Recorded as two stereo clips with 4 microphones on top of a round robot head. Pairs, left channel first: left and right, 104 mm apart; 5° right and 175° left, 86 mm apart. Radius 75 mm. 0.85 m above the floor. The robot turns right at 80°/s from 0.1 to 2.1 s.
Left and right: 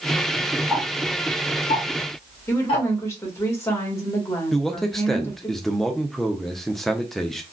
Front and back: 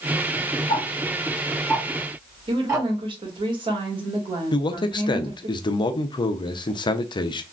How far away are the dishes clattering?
No dishes clattering in this recording.